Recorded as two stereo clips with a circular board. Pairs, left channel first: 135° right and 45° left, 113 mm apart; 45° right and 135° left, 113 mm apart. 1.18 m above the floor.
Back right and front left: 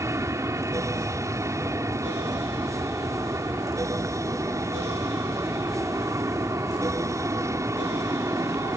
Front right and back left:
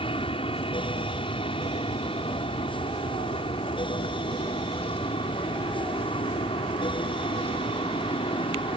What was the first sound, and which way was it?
An aircraft, 15° right.